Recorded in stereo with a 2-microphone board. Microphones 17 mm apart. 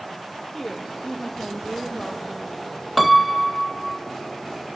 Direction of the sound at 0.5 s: 15° left (ahead or behind).